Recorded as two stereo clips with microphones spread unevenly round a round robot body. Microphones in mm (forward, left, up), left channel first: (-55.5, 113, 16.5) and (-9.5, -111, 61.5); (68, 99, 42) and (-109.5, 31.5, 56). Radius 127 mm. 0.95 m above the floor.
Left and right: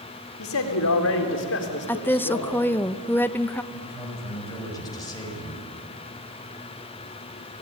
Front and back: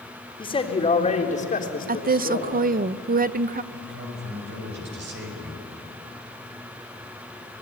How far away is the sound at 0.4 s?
About 3.5 m.